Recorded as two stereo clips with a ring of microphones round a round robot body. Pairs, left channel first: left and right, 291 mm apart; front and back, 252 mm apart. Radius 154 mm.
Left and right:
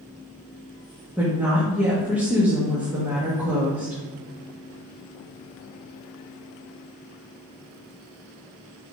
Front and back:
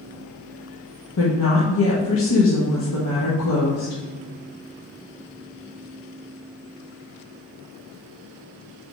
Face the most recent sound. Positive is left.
turn(degrees=-5)